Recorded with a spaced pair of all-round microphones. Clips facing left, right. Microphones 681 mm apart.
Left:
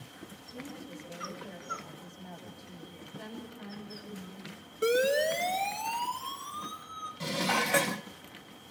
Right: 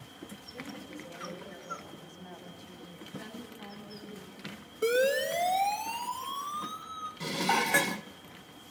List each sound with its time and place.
0.5 s a woman speaking: 70° left (ahead or behind), 9 m
3.1 s a woman speaking: 80° left, 9 m
4.8 s a siren: 50° left (ahead or behind), 2.5 m; by 7.1 s 55° left (ahead or behind), 4.5 m
7.2 s dishes clattering: 10° left (ahead or behind), 0.6 m